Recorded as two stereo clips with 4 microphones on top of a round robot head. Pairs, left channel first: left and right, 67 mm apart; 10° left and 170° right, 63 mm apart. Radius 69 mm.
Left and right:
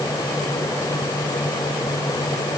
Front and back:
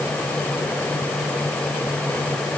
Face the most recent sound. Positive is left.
No sound to turn to.